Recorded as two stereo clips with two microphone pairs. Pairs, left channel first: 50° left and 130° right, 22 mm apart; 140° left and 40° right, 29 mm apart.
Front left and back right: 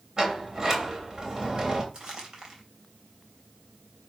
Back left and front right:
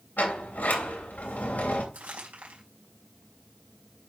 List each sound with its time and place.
0.2 s a sliding door: 165° left, 3 m
1.9 s crumpling: 65° right, 3.5 m